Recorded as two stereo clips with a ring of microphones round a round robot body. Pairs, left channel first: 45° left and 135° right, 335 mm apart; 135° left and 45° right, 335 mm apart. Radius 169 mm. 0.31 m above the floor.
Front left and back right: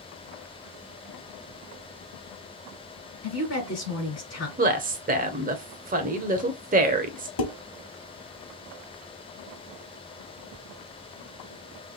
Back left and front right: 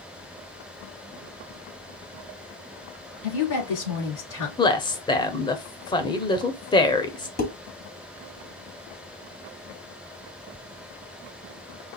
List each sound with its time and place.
3.2 s a woman speaking: 100° left, 4 m
4.6 s a woman speaking: 165° right, 0.9 m
7.4 s dishes clattering: 75° left, 1.6 m